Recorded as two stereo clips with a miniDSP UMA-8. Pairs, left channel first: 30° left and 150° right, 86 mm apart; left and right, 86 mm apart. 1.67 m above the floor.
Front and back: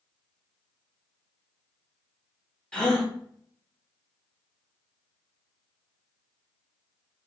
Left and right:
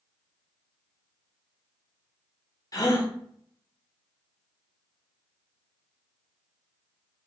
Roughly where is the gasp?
Left.